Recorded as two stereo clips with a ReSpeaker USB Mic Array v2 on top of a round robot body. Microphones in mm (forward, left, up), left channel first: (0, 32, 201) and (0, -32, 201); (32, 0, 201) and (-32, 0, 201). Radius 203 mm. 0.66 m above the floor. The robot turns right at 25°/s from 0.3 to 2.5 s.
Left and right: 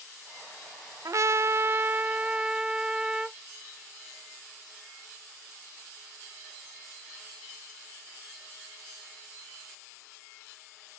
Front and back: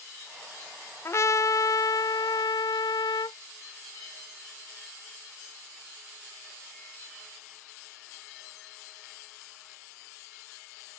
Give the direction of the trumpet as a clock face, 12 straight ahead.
2 o'clock.